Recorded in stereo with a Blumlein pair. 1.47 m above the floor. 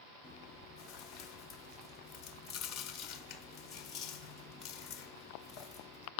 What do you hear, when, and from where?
0.2 s chewing: 30° left, 1.1 m